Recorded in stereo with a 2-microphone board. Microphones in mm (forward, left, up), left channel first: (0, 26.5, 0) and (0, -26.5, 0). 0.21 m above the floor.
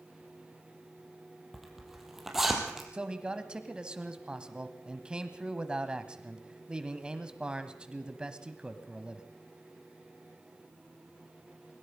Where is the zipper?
5° right (ahead or behind), 4 m.